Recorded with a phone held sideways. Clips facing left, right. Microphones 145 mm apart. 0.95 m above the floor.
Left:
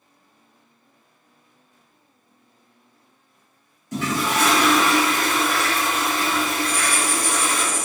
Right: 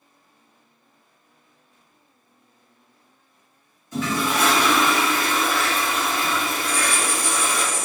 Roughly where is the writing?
Left.